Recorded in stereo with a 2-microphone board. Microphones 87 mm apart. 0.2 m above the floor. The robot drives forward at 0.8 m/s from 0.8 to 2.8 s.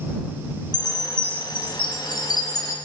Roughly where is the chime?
Left.